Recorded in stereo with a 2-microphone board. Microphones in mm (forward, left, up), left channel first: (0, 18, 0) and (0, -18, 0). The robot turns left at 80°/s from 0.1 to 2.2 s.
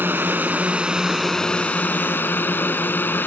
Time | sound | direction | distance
0.0 | a drone | 90° right | ?